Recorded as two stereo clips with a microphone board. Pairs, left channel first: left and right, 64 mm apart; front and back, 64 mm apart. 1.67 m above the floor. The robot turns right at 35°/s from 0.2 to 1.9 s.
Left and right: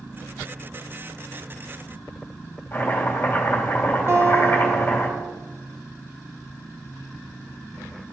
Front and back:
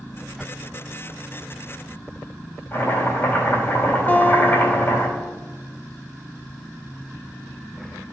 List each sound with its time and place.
2.7 s chopping: 45° left, 2.5 m
4.1 s a guitar: 55° right, 0.7 m